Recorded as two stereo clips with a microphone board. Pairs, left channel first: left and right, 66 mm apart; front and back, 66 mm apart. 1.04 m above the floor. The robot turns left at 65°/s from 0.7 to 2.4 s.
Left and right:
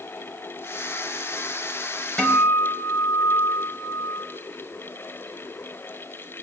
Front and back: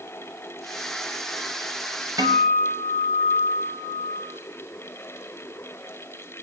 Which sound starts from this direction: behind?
A guitar, at 2.2 s.